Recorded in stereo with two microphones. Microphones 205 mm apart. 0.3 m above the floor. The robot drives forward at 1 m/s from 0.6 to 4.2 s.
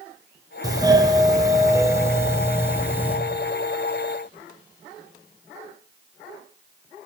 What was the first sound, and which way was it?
A doorbell, 15° right (ahead or behind).